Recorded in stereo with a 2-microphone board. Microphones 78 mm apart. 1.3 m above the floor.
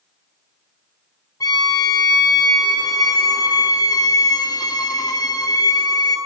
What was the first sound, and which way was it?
A violin, 60° left (ahead or behind).